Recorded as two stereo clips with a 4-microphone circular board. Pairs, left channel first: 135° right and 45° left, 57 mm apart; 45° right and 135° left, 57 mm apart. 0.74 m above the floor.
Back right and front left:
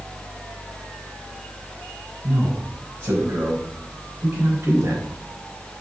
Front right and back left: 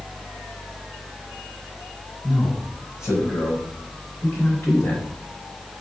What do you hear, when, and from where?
2.2 s a man speaking: 20° right, 4.5 m; by 5.0 s 5° left, 4 m